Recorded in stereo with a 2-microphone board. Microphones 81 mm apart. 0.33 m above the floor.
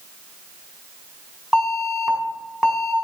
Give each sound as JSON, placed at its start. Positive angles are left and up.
{"t": 1.5, "sound": "an alarm", "side_deg": -5, "distance_m": 1.5}